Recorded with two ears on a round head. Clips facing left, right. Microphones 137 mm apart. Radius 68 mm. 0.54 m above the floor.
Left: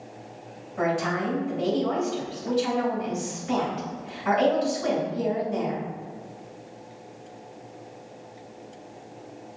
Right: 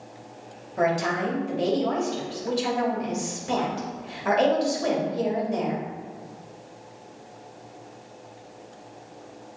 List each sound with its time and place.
0.8 s a woman speaking: 45° right (ahead or behind), 3 m